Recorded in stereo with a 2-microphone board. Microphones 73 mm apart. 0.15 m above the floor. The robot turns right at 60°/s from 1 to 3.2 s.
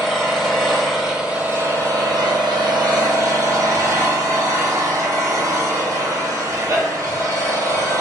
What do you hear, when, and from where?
0.0 s an engine running: straight behind, 1.3 m; by 8.0 s 45° right, 1.3 m